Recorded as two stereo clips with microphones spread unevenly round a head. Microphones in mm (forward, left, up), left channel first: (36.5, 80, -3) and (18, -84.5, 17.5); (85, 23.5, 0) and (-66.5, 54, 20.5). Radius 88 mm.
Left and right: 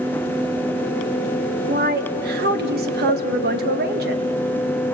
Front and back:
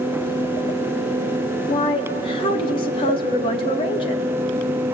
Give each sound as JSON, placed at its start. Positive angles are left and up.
{"t": 1.7, "sound": "a woman speaking", "azimuth_deg": -70, "distance_m": 1.7}